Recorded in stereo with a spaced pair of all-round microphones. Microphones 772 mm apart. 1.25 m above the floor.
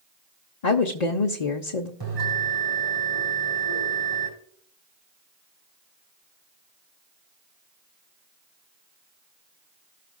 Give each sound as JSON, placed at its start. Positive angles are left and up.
{"t": 0.6, "sound": "a woman speaking", "side_deg": 55, "distance_m": 0.9}
{"t": 2.0, "sound": "a bell", "side_deg": -30, "distance_m": 6.5}